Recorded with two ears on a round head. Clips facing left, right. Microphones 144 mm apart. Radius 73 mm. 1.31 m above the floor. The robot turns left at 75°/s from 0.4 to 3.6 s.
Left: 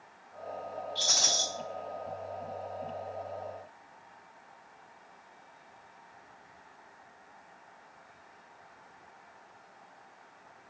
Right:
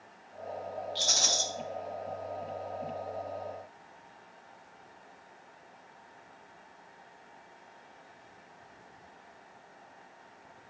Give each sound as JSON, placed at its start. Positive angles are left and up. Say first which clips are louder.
{"t": 0.9, "sound": "a rattle", "louder": "right 1 dB", "azimuth_deg": -80, "distance_m": 1.3}